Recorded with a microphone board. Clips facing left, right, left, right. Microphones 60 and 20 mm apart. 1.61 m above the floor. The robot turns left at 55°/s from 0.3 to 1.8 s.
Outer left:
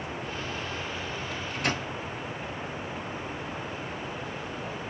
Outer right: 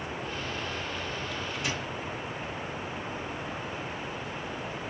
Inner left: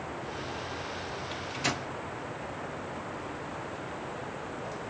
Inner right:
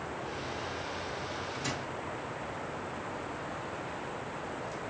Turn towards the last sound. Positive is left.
turn(degrees=50)  # may be behind; listen again after turning